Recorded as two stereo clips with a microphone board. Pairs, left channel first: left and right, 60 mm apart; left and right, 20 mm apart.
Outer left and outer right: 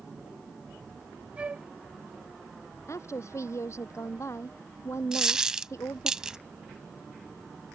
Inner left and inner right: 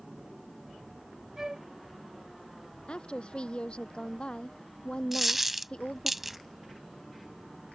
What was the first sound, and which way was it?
A flute, 20° right (ahead or behind).